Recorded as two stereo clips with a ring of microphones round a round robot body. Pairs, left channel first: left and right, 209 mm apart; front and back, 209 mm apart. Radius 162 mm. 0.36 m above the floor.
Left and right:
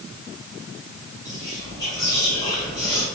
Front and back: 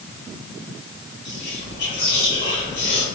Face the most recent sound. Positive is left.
turn(degrees=20)